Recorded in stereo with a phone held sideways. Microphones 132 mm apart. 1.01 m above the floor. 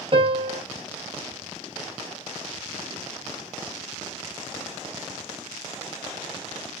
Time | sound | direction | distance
0.1 | a piano | 40° right (ahead or behind) | 0.9 m